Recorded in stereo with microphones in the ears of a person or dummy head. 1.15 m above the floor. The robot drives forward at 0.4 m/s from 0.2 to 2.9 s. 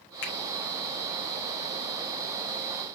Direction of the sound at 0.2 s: 65° left (ahead or behind).